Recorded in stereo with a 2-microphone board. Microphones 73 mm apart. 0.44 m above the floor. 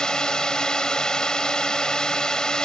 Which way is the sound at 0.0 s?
10° left (ahead or behind).